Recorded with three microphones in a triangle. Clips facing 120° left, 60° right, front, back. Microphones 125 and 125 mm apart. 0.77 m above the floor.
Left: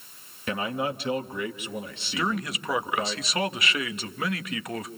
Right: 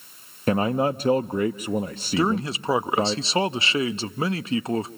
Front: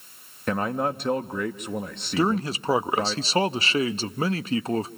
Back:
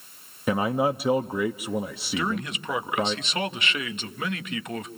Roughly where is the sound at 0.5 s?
Right.